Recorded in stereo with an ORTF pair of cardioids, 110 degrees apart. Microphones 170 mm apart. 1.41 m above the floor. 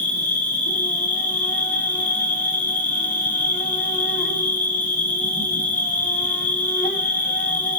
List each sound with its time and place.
0.0 s an insect: 50° left, 1.2 m